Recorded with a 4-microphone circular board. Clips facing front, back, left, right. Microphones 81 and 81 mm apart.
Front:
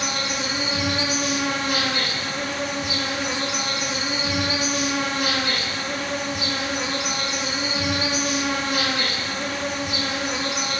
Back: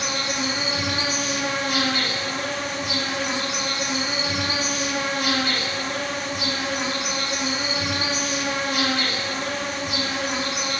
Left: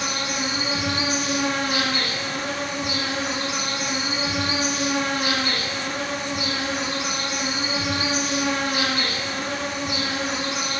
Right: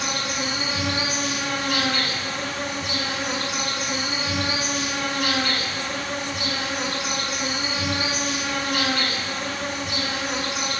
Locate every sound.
0.0 s an insect: 20° left, 1.4 m